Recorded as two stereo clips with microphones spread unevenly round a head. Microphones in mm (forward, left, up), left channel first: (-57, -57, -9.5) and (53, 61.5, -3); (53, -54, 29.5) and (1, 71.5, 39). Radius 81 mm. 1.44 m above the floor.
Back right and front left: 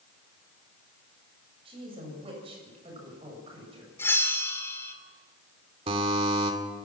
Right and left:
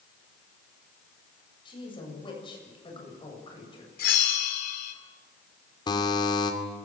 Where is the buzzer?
10° right, 2.5 m.